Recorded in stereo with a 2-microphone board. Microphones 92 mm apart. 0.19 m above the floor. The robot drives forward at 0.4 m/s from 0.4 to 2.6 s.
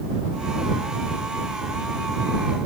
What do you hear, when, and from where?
Only background noise.